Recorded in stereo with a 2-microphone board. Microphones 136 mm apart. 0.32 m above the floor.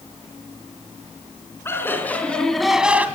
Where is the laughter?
20° left (ahead or behind), 3 m; by 3.1 s 15° right (ahead or behind), 1.9 m.